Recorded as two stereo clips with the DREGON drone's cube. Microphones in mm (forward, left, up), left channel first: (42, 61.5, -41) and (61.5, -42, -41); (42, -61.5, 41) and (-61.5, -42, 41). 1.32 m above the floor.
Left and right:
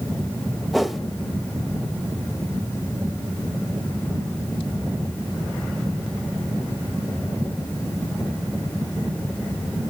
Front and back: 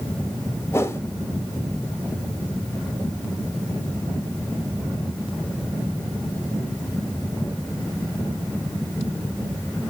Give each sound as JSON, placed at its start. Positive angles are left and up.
{"t": 0.7, "sound": "a whoosh", "azimuth_deg": 10, "distance_m": 1.1}